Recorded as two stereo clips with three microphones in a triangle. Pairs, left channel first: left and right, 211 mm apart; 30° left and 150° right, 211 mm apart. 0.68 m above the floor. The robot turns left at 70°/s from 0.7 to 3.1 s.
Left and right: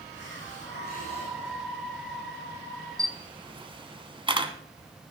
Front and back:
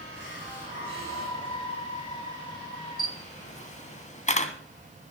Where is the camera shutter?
20° right, 1.4 m; by 4.5 s 25° right, 1.4 m.